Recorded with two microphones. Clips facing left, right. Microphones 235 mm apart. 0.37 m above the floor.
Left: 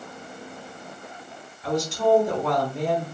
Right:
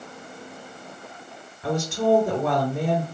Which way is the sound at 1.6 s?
70° right (ahead or behind).